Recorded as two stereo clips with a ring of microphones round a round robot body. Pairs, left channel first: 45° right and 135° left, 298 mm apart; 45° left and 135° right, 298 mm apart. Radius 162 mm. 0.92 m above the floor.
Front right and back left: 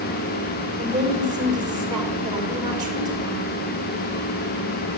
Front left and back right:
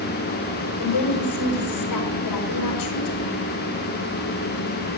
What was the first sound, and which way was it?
A woman speaking, 60° left.